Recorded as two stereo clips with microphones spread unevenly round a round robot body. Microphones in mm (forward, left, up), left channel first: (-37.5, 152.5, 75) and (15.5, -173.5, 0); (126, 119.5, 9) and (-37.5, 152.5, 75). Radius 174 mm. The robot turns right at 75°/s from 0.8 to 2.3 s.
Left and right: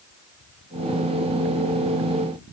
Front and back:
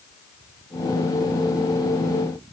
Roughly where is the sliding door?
No sliding door in this recording.